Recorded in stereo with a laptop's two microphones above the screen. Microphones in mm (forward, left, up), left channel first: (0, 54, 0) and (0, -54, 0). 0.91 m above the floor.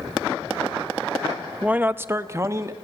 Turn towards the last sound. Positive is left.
turn(degrees=-30)  # may be behind; listen again after turning